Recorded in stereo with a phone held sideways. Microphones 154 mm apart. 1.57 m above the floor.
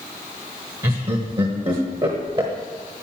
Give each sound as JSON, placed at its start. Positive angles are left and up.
{"t": 0.8, "sound": "laughter", "side_deg": -35, "distance_m": 1.1}